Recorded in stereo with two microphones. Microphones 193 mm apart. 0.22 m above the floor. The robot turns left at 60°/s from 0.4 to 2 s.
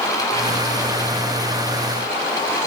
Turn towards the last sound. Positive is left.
No sound to turn to.